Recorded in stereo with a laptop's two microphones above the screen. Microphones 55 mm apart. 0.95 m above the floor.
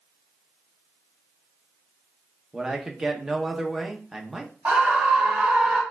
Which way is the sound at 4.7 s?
30° right (ahead or behind).